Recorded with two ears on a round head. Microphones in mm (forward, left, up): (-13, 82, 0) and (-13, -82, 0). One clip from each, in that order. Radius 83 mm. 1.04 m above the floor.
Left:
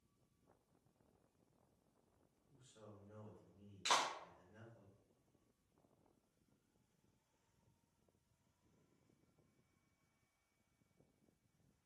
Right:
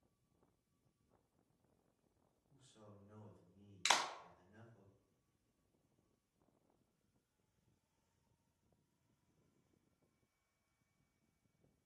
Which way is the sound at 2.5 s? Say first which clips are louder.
Left 2 dB; 75° right (ahead or behind).